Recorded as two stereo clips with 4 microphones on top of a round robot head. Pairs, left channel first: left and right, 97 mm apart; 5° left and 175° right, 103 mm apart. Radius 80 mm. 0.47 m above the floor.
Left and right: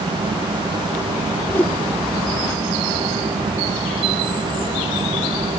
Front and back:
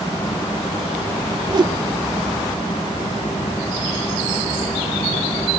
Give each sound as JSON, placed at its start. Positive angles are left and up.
{"t": 1.5, "sound": "a whoosh", "azimuth_deg": 155}